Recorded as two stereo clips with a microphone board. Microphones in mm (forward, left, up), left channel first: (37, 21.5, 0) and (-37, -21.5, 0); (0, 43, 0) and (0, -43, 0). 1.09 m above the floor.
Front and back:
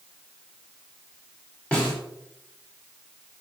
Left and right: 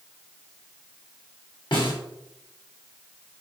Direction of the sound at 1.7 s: 105° left.